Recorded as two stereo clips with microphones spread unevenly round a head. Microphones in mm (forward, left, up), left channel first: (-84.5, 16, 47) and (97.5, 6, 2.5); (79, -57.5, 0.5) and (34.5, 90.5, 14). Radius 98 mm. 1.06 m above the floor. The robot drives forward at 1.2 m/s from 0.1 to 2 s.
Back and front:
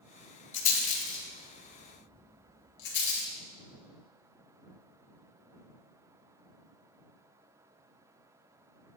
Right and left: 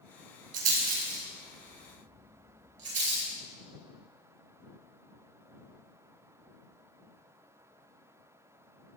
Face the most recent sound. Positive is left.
turn(degrees=160)